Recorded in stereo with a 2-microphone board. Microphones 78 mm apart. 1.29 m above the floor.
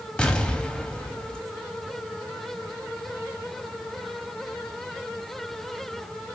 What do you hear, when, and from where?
0.2 s an explosion: 10° left (ahead or behind), 0.6 m